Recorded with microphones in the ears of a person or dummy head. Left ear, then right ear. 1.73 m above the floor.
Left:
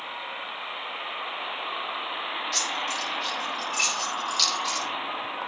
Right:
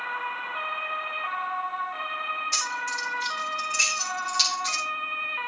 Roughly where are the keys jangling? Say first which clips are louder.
Left 3 dB; right.